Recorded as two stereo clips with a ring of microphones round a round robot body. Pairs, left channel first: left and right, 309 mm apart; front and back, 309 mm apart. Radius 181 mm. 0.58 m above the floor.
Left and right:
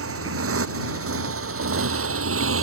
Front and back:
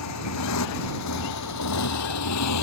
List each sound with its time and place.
0.0 s a motorcycle: 45° right